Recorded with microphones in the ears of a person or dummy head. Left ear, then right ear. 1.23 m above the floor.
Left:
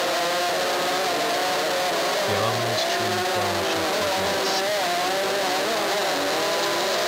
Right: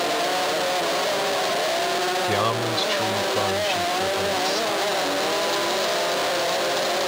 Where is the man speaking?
15° right (ahead or behind); by 4.7 s 25° right (ahead or behind).